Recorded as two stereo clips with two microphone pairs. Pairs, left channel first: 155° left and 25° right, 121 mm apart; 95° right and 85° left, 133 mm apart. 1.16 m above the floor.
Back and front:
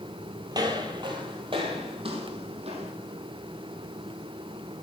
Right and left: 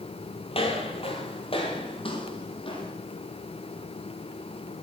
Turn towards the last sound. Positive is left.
turn(degrees=-50)